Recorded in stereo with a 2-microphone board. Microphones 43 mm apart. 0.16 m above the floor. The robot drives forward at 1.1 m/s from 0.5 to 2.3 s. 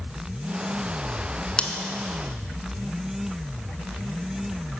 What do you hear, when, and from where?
1.6 s scissors: 20° left (ahead or behind), 0.7 m